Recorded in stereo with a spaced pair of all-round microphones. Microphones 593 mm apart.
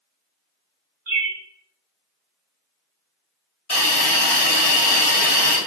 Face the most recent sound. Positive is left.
turn(degrees=50)  # may be behind; listen again after turning